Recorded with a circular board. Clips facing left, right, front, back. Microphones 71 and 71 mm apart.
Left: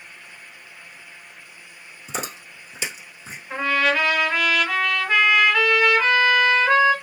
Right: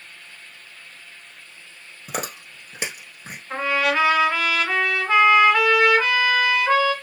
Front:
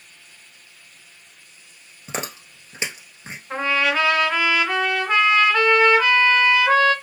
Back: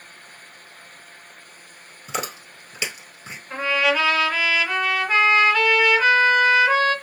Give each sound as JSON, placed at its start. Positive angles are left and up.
{"t": 2.1, "sound": "chewing", "azimuth_deg": -60, "distance_m": 1.4}
{"t": 3.5, "sound": "a trumpet", "azimuth_deg": -30, "distance_m": 1.8}